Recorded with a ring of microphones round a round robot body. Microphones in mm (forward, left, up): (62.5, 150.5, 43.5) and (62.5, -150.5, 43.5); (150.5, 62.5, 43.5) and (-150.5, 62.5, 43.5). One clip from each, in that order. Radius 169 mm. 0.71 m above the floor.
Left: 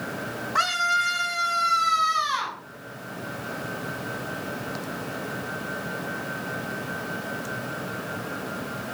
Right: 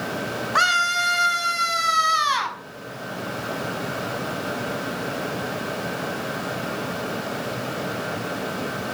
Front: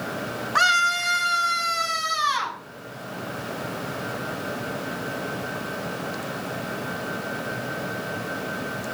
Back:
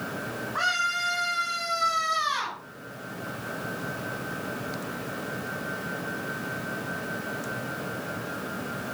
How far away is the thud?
I don't hear a thud.